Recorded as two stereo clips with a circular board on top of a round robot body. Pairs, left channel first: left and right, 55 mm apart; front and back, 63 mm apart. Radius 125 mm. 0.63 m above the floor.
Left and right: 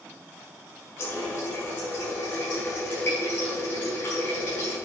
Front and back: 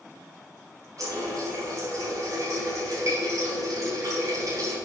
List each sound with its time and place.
1.0 s a running tap: 140° left, 4.5 m